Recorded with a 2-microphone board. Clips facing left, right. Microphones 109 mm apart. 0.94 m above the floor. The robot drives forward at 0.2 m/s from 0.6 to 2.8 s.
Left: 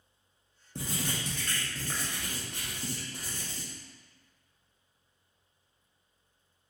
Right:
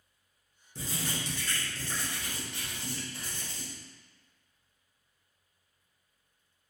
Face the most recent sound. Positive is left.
turn(degrees=40)  # may be behind; listen again after turning